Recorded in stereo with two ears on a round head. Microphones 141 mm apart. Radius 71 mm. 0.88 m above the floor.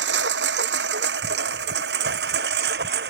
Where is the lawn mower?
80° right; by 3.1 s 70° right (ahead or behind).